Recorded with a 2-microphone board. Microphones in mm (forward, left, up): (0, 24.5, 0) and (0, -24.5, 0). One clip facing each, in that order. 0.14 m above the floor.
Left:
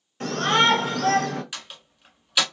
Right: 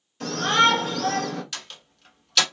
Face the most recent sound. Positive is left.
turn(degrees=15)  # may be behind; listen again after turning